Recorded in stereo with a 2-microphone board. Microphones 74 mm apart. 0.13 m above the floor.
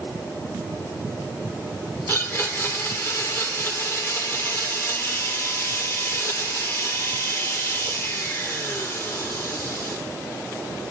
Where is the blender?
35° left (ahead or behind), 1.8 m.